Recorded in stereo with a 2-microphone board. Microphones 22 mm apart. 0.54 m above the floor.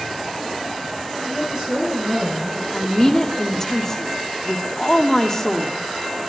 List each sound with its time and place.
1.2 s a woman speaking: 10° right (ahead or behind), 6 m; by 2.6 s 15° right (ahead or behind), 7 m
2.7 s a woman speaking: 25° left (ahead or behind), 0.8 m